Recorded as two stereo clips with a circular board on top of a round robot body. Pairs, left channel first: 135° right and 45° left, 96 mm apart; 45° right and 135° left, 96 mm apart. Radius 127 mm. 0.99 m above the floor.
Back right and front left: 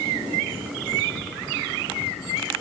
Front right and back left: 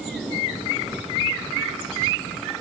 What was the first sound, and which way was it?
Only background noise.